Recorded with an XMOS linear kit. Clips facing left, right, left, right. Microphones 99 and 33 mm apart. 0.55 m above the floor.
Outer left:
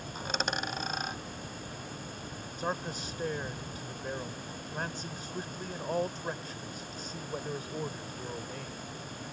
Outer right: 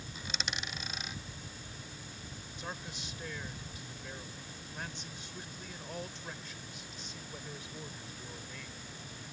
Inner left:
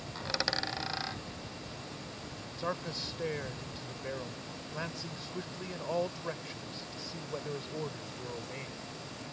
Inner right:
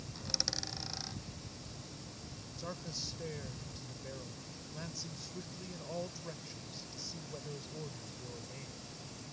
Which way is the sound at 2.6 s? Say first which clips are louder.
Outer left 10 dB, inner left 8 dB; 45° left (ahead or behind).